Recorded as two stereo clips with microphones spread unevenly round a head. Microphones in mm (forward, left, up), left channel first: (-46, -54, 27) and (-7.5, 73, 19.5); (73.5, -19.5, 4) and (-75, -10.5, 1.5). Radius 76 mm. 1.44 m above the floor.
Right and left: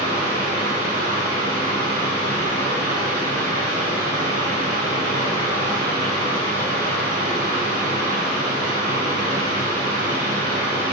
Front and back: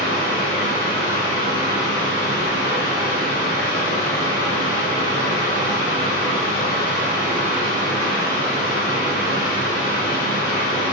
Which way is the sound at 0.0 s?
45° left.